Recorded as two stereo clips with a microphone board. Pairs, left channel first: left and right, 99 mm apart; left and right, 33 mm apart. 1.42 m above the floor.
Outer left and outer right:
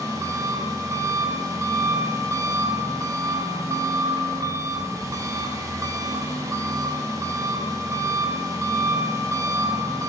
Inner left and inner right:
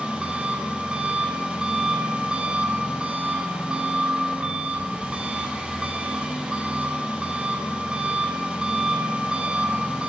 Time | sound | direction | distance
0.0 | an engine running | 30° right (ahead or behind) | 1.0 m